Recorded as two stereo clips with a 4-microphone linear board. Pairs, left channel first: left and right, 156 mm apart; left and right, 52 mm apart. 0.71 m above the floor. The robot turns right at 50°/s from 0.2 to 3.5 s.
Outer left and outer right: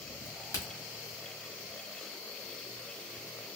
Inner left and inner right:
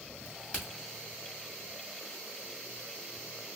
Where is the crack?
35° left (ahead or behind), 1.8 m; by 0.7 s 15° left (ahead or behind), 1.8 m.